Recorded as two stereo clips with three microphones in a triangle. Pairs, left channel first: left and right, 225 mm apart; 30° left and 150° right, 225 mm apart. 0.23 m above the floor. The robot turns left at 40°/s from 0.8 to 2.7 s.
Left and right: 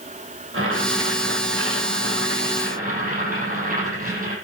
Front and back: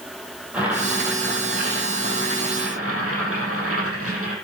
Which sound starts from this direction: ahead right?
Boiling, at 0.5 s.